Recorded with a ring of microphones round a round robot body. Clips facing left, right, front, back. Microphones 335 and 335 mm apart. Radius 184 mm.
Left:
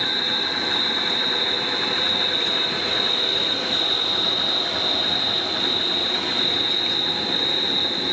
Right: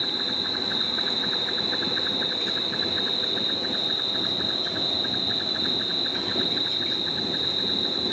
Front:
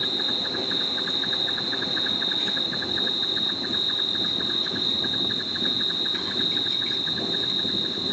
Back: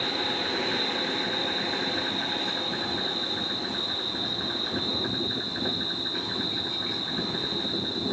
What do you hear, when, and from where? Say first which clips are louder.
0.0 s an insect: left 3 dB, back 1 dB; 60° left, 6.5 m